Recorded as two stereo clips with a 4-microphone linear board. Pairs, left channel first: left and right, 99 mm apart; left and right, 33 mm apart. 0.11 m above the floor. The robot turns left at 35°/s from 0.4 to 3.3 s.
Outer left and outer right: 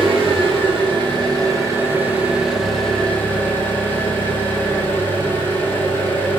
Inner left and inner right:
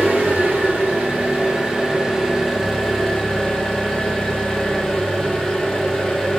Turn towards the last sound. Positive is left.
turn(degrees=160)